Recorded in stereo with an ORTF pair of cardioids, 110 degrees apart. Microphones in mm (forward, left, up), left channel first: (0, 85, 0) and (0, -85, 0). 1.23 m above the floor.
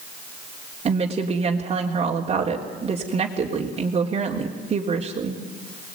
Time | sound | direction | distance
0.8 | a woman speaking | 35° right | 3.5 m